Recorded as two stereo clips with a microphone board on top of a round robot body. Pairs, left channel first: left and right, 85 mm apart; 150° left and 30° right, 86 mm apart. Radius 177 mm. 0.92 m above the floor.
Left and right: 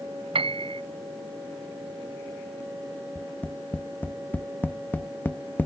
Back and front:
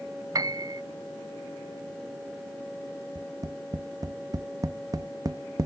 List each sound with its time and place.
0.3 s a piano: 80° right
3.1 s tapping: 20° left